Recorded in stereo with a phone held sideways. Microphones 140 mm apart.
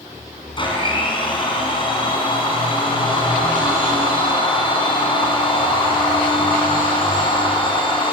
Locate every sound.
0.6 s a blender: 35° left (ahead or behind), 5.5 m